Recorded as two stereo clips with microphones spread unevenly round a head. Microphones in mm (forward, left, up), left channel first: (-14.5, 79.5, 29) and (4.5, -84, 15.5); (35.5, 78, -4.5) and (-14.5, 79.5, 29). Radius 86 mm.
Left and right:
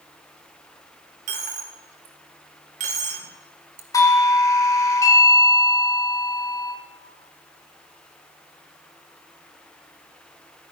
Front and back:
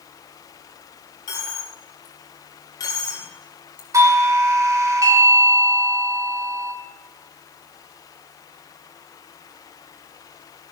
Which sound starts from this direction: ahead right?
A dropped coin, at 1.3 s.